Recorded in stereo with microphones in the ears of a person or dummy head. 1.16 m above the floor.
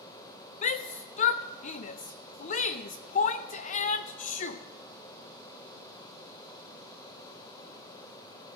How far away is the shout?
About 0.7 m.